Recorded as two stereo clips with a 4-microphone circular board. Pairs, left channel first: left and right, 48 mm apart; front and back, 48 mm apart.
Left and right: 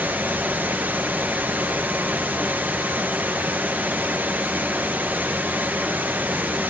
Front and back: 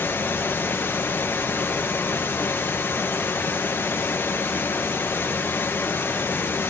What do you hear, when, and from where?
0.0 s running water: 40° right, 1.9 m